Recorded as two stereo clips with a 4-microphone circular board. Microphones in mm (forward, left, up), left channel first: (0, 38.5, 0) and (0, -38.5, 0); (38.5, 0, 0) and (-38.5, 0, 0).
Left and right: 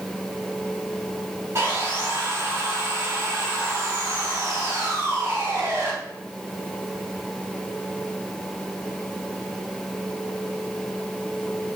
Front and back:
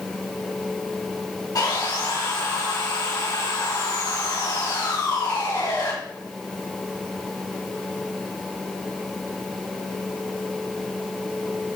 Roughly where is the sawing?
Ahead right.